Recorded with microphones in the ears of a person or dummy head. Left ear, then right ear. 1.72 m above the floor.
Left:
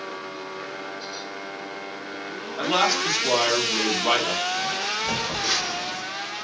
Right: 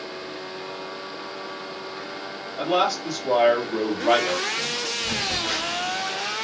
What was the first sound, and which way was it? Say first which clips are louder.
A man speaking: left 1 dB; 55° left (ahead or behind).